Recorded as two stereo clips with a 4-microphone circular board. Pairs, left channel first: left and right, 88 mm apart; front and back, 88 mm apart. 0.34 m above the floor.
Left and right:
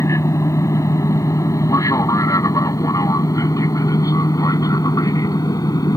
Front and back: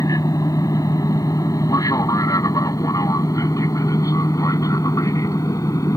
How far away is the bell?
No bell in this recording.